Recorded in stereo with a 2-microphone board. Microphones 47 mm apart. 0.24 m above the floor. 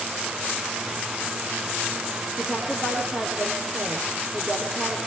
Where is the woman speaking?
15° right (ahead or behind), 8 m.